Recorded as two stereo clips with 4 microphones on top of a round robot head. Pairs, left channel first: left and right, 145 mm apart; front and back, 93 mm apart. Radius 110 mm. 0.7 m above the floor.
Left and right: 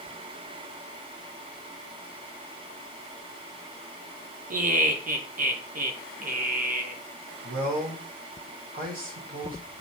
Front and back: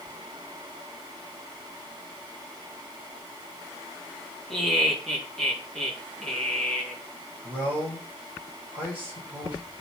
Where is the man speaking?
105° right, 3 m.